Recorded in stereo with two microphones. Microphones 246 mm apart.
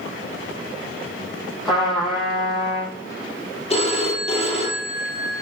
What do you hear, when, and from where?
1.6 s a trumpet: centre (ahead or behind), 4.5 m
3.7 s a phone ringing: 25° left (ahead or behind), 2.5 m